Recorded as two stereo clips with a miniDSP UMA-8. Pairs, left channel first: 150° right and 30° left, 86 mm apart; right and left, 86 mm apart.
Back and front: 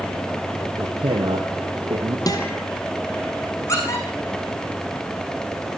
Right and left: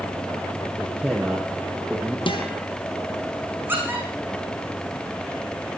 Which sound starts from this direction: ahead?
A man speaking, at 0.8 s.